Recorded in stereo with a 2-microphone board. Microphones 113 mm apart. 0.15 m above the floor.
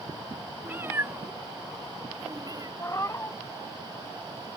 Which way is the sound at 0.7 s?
20° right (ahead or behind).